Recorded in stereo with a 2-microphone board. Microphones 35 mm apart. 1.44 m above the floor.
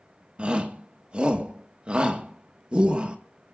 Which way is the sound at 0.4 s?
30° right (ahead or behind).